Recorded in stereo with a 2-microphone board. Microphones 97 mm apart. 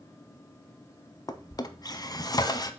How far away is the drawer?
About 0.7 m.